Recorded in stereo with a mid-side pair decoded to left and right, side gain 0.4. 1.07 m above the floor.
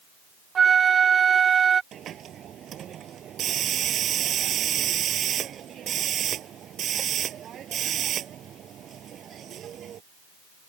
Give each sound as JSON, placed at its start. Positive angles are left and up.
{"t": 0.6, "sound": "a flute", "azimuth_deg": -50}
{"t": 1.9, "sound": "a hiss", "azimuth_deg": -65}